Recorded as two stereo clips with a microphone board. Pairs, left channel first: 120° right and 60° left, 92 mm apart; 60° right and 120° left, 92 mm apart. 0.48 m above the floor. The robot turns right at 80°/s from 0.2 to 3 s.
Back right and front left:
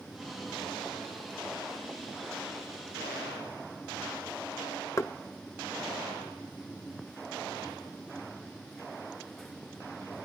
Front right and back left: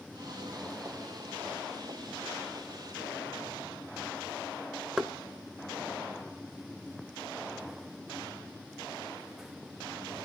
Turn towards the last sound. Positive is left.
turn(degrees=-160)